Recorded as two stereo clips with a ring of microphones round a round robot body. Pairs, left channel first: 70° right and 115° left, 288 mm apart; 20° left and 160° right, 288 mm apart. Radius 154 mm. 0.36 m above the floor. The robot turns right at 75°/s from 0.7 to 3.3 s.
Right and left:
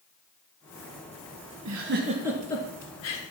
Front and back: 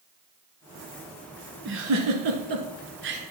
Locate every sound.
1.6 s a giggle: 145° left, 1.3 m; by 3.2 s 95° right, 1.3 m